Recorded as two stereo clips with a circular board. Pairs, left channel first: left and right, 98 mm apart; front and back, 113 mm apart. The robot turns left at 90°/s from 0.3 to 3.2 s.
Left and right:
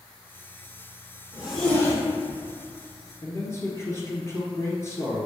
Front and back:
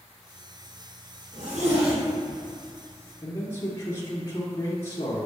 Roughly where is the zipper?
Behind.